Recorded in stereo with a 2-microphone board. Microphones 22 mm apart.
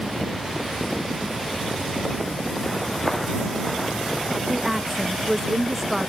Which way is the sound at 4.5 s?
5° right (ahead or behind).